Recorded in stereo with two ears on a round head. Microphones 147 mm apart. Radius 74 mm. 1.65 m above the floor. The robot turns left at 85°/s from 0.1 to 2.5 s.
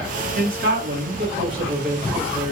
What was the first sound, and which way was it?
A man speaking, 45° right.